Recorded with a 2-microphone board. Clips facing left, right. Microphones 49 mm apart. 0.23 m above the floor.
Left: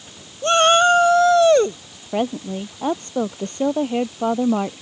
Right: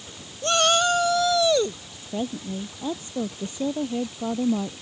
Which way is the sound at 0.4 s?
30° left (ahead or behind).